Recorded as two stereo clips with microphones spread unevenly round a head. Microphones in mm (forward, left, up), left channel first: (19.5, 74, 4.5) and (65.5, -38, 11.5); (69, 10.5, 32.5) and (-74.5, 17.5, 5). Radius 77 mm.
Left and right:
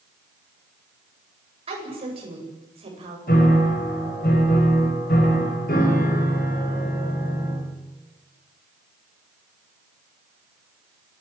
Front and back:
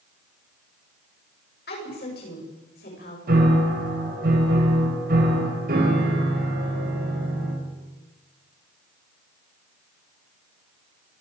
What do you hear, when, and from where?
1.7 s a woman speaking: 30° right, 10 m
3.3 s a piano: 150° left, 6.5 m